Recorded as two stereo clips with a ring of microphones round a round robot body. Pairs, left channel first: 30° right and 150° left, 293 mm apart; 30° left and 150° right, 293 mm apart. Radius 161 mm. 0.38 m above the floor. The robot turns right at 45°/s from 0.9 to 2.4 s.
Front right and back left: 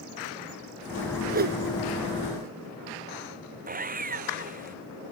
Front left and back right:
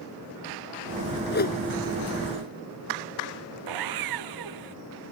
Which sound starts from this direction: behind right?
Sawing, at 3.7 s.